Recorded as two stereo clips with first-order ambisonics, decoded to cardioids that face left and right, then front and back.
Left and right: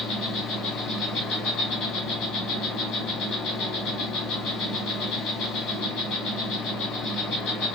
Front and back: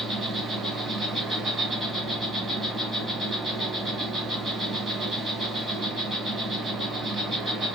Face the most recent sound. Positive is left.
turn(degrees=110)